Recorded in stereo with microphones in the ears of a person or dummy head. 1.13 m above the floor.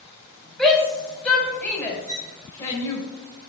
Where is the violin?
75° right (ahead or behind), 3 m.